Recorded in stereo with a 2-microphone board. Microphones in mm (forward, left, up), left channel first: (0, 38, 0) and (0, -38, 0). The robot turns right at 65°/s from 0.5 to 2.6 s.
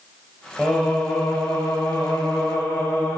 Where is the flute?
I don't hear a flute.